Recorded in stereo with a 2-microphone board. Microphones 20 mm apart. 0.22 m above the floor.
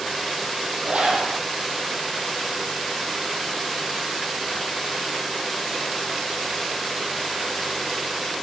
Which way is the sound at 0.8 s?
65° right (ahead or behind).